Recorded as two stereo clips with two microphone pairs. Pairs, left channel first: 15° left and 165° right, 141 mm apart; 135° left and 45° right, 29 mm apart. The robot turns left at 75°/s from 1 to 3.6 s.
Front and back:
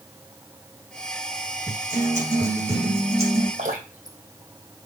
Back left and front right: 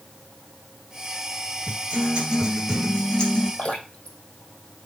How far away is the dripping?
About 2 m.